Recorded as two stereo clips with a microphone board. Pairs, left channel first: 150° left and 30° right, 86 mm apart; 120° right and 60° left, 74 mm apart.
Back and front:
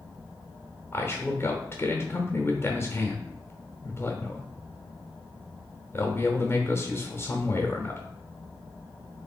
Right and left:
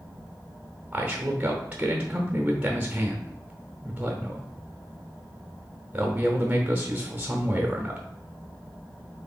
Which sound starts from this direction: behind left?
A man speaking, at 0.9 s.